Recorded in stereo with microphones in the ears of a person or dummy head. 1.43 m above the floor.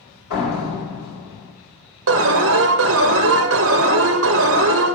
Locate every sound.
0.3 s a door slam: 80° left, 4 m
2.1 s an alarm: 65° right (ahead or behind), 0.7 m